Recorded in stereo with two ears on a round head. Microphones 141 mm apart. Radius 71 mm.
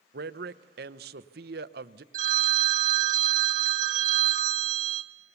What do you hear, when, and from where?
0.1 s a man speaking: 65° right (ahead or behind), 0.7 m
2.1 s a phone ringing: 55° right (ahead or behind), 1.5 m